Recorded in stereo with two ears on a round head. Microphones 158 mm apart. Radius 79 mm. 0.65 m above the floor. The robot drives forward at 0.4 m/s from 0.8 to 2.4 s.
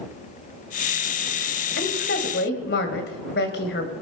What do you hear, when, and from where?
1.8 s a woman speaking: 65° left (ahead or behind), 3 m